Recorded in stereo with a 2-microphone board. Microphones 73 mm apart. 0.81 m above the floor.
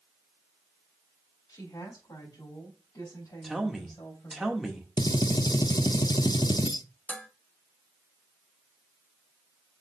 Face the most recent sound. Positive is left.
turn(degrees=25)  # may be behind; listen again after turning